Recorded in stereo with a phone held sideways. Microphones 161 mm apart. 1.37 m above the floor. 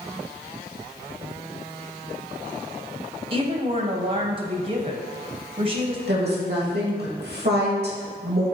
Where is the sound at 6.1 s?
75° right (ahead or behind), 2.5 m.